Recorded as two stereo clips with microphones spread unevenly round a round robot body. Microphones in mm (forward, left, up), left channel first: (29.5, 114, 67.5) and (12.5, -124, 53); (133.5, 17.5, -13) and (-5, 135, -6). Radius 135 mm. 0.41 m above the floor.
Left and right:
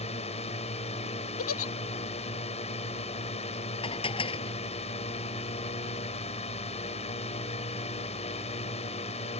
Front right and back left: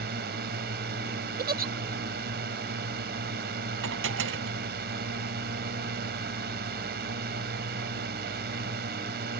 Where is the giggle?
110° left.